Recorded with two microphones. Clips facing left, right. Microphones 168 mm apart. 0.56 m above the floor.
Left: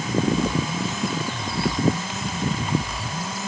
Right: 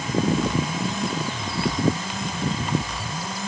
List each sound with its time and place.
Only background noise.